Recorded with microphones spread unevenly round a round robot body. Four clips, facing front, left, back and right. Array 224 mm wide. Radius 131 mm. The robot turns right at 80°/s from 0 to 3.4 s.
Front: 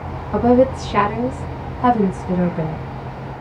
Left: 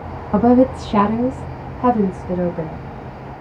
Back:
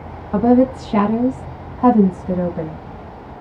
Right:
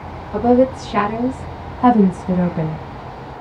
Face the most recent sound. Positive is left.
turn(degrees=-25)